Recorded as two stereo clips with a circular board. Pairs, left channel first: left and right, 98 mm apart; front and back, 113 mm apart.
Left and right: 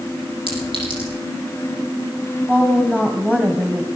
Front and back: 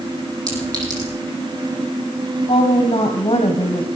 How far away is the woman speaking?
About 2.5 m.